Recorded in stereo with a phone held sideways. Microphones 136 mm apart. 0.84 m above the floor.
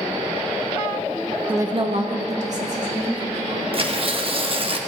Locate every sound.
1.5 s a woman speaking: 15° right (ahead or behind), 0.7 m; by 3.6 s 60° right (ahead or behind), 3.5 m
3.7 s tearing paper: 40° right (ahead or behind), 0.9 m